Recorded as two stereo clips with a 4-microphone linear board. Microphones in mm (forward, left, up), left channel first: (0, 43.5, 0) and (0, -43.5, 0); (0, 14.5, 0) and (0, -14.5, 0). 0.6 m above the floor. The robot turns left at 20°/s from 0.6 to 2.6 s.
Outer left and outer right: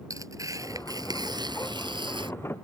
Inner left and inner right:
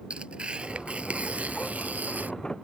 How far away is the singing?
I don't hear singing.